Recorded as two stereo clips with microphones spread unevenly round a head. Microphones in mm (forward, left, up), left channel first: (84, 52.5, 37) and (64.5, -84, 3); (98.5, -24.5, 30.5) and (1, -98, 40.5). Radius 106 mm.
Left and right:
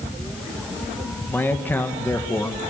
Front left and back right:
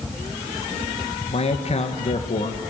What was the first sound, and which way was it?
A man speaking, 5° left.